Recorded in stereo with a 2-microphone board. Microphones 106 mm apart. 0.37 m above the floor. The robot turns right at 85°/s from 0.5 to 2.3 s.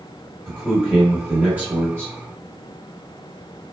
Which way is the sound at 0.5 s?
10° left (ahead or behind).